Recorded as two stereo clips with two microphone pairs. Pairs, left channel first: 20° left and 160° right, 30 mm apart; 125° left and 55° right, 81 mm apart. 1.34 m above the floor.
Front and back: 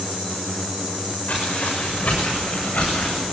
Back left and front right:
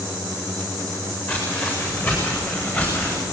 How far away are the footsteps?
About 7.5 m.